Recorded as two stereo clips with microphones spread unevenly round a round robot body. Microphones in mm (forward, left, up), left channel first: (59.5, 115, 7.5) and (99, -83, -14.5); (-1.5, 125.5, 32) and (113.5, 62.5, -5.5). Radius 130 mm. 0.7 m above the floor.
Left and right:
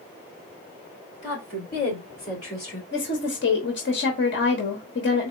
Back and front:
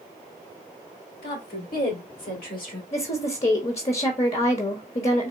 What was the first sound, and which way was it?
A woman speaking, 165° left.